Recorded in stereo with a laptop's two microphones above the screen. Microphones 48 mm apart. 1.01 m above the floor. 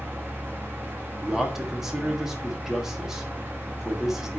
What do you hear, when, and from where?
0.0 s a fan: 40° right (ahead or behind), 2.5 m
1.2 s a man speaking: 10° right (ahead or behind), 1.3 m